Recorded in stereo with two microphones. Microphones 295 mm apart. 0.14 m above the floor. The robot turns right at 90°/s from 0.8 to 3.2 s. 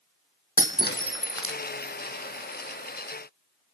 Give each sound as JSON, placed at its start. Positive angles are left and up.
{"t": 0.6, "sound": "breaking glass", "side_deg": 25, "distance_m": 1.9}